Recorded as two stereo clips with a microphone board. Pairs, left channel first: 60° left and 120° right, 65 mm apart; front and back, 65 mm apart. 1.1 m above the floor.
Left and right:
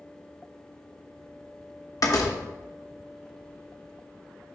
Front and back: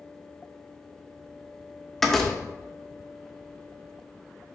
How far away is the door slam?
About 1.1 m.